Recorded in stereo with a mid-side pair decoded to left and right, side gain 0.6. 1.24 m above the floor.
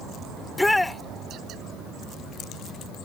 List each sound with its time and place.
0.4 s a shout: 10° left